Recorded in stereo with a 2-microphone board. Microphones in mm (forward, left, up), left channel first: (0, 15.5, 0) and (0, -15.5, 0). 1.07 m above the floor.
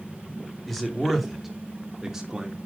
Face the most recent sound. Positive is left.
turn(degrees=-20)  # may be behind; listen again after turning